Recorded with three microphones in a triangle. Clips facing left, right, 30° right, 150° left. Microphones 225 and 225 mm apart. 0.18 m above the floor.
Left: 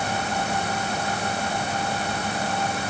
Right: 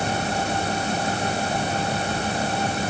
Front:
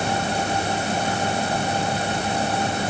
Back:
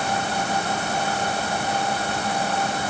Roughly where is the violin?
No violin in this recording.